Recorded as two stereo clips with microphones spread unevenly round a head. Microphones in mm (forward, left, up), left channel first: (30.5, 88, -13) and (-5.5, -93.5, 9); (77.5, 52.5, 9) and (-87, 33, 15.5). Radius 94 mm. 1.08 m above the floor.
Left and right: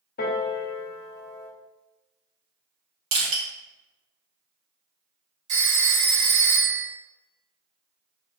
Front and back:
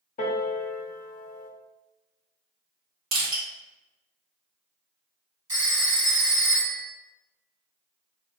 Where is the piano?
40° left, 0.5 m.